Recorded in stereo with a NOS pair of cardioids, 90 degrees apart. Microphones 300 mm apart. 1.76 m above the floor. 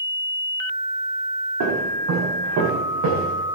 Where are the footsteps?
65° right, 9 m; by 3.4 s 80° right, 8 m.